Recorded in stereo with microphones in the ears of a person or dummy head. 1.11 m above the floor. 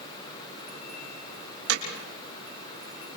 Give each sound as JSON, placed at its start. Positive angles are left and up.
{"t": 1.7, "sound": "hammering", "side_deg": -80, "distance_m": 6.0}